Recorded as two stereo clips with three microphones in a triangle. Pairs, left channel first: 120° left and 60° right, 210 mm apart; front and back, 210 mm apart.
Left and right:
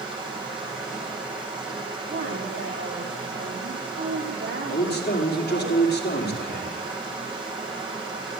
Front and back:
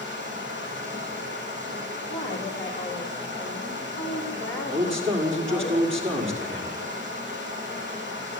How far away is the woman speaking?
About 3.5 m.